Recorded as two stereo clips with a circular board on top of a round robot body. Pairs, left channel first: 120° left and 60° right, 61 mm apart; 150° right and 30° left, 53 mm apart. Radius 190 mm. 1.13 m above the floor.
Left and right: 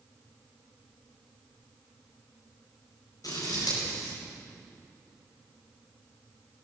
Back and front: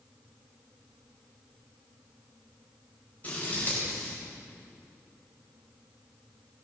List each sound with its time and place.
3.2 s scissors: 150° left, 4.5 m